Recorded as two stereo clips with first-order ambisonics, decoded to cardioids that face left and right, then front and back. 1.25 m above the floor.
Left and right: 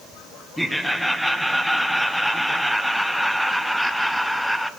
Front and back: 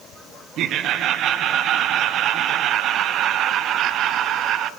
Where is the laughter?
Straight behind, 0.6 m.